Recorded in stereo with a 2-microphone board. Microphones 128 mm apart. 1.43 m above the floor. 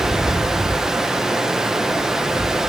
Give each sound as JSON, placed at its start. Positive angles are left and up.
{"t": 0.0, "sound": "running water", "side_deg": -5, "distance_m": 0.8}